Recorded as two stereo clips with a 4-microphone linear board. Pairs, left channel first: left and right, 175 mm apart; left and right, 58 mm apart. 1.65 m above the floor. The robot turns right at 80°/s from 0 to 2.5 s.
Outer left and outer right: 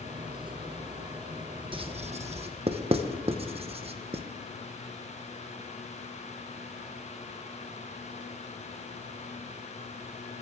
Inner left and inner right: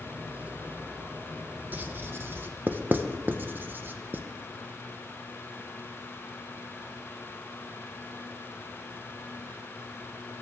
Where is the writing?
30° right (ahead or behind), 0.8 m; by 4.2 s 35° right (ahead or behind), 0.8 m.